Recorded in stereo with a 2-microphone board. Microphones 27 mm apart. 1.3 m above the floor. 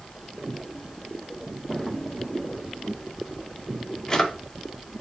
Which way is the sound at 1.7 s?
25° left (ahead or behind).